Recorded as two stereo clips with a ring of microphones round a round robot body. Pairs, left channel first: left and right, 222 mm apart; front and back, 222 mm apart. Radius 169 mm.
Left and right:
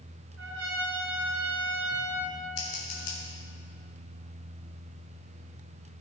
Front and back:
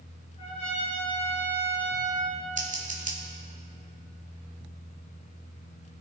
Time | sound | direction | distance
0.4 | a trumpet | 70° right | 2.5 m
2.6 | scissors | 125° left | 2.5 m